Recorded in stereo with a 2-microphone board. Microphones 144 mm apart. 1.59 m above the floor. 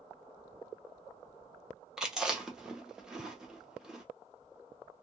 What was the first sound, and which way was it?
Chewing, 5° right (ahead or behind).